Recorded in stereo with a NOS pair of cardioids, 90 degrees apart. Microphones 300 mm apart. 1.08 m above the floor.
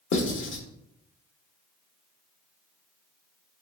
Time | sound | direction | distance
0.1 | writing | 45° left | 0.9 m